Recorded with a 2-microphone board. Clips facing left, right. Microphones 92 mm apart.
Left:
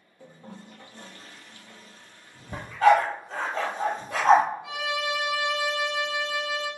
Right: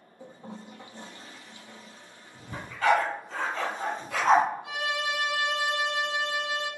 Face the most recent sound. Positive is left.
turn(degrees=-35)  # may be behind; listen again after turning